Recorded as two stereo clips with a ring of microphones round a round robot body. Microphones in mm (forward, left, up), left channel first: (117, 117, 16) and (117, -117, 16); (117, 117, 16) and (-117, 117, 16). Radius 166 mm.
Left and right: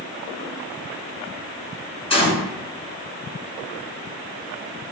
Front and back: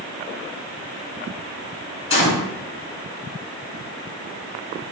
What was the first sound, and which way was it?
A gunshot, 25° left.